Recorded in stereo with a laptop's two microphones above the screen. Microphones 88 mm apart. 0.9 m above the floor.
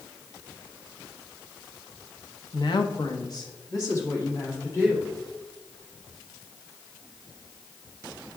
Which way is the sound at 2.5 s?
55° left (ahead or behind).